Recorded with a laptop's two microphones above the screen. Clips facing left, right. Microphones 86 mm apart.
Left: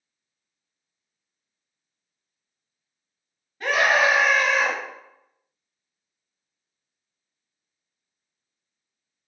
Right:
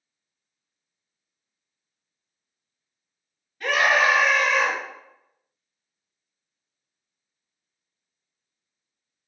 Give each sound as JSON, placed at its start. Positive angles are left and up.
{"t": 3.6, "sound": "a scream", "side_deg": 25, "distance_m": 1.6}